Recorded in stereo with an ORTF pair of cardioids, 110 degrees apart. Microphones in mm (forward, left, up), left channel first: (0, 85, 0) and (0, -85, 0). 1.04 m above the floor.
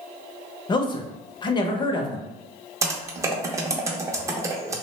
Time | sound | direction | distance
0.7 | a man speaking | 25° left | 0.6 m
2.8 | typing on a keyboard | 20° right | 0.5 m